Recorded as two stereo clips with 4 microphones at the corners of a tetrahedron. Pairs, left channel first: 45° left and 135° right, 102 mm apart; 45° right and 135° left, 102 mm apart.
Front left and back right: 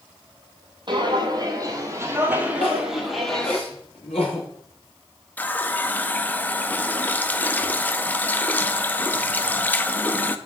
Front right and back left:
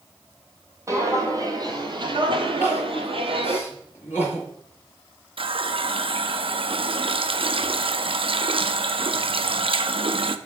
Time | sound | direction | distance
0.9 | footsteps | 170° right | 1.7 m
2.6 | crying | 25° left | 4 m
5.4 | a running tap | 120° left | 0.6 m